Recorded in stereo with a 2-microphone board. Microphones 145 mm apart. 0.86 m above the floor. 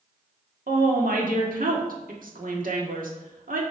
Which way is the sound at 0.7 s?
75° right (ahead or behind).